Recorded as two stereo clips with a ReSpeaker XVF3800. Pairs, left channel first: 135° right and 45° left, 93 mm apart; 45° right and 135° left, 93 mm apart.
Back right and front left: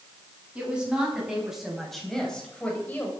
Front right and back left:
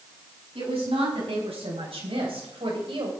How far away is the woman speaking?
About 6 m.